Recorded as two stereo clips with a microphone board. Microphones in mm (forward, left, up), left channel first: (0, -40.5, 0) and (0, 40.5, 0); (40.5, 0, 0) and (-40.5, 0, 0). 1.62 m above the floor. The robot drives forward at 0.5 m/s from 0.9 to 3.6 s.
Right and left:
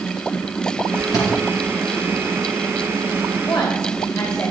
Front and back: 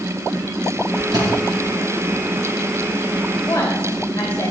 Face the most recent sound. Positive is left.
turn(degrees=-55)